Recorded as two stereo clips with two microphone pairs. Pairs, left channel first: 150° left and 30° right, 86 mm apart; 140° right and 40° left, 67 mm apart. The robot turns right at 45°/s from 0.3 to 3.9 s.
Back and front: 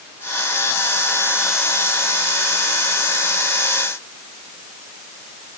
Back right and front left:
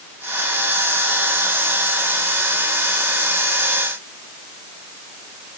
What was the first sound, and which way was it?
Only background noise.